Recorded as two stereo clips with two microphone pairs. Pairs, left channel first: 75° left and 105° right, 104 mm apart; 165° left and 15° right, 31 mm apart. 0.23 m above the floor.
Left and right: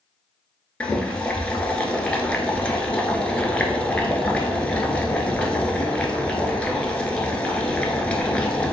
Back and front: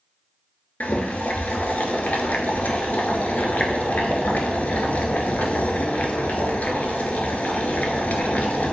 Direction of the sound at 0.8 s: 155° left.